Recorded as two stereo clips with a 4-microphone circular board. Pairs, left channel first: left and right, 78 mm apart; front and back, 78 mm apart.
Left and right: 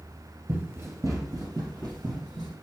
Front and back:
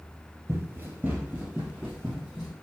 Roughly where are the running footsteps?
Behind right.